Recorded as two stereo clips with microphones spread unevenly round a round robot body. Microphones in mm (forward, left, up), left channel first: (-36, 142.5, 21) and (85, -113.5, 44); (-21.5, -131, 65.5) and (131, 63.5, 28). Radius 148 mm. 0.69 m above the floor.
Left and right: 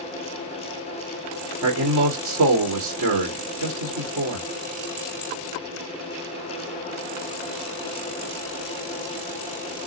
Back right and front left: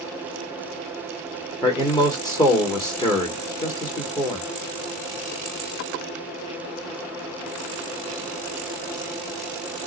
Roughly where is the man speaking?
Ahead right.